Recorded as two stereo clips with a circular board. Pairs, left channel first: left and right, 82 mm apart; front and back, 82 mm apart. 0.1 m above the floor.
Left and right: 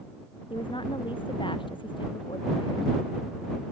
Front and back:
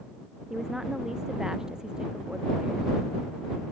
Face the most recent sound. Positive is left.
turn(degrees=100)